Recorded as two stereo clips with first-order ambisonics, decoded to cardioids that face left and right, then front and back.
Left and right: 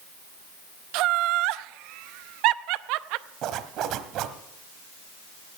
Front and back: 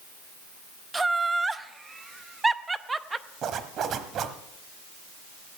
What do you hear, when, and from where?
0.9 s laughter: 100° right, 0.6 m
3.4 s a zipper: 130° right, 1.0 m